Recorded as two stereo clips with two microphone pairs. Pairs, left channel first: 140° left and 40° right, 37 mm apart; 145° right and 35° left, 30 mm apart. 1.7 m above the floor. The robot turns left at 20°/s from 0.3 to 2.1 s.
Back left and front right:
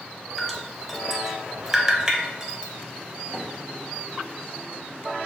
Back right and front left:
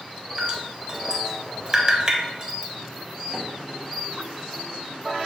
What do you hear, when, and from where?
0.4 s dripping: 55° left, 0.8 m; by 2.7 s 20° left, 0.8 m
3.3 s a microwave: 20° left, 1.5 m